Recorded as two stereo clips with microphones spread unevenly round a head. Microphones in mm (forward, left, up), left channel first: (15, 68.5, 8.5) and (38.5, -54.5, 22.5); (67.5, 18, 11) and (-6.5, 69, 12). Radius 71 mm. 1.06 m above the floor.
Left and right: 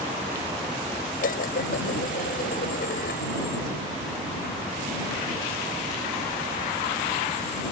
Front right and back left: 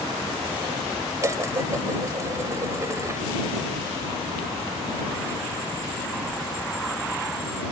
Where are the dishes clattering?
90° left.